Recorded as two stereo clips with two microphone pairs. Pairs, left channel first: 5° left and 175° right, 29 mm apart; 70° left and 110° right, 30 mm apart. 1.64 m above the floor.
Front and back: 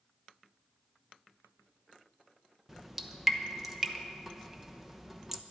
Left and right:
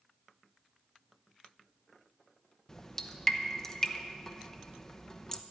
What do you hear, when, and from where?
2.7 s dripping: 110° left, 0.8 m